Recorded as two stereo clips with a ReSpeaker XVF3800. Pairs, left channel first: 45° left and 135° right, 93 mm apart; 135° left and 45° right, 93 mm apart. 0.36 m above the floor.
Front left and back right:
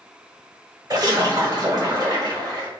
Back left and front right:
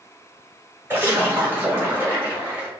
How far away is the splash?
About 1.5 m.